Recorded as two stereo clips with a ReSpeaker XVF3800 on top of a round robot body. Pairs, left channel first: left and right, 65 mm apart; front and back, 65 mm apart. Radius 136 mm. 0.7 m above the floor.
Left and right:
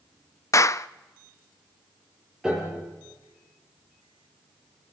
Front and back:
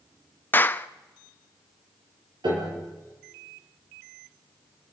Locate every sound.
0.5 s a clap: 55° left, 0.7 m
2.4 s a piano: 175° right, 6.5 m